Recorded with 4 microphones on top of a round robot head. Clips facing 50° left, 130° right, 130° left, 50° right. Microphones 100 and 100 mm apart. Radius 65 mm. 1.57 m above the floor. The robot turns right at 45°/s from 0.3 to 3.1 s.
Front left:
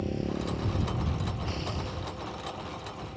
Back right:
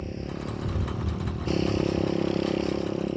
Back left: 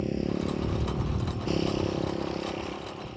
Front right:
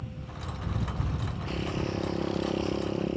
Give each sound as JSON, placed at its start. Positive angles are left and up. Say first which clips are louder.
{"t": 0.0, "sound": "a motorcycle", "louder": "front left 3 dB, back left 13 dB", "azimuth_deg": 135}